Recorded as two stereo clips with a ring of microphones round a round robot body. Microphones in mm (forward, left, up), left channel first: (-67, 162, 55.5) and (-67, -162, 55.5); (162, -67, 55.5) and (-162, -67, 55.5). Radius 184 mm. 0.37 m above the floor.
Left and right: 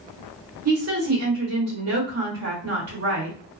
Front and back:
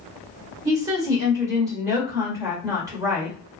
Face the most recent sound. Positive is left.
turn(degrees=-105)